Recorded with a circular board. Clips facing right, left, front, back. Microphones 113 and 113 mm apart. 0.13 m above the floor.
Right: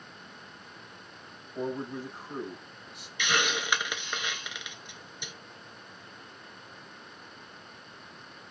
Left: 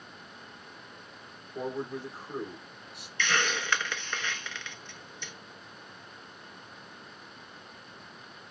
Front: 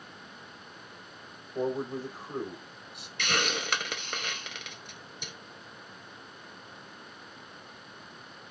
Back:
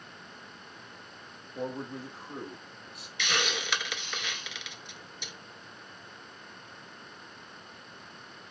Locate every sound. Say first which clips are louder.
1.6 s a man speaking: right 1 dB, front 5 dB; 5° left, 3.5 m
3.2 s a hiss: even, front 1 dB; 15° right, 0.6 m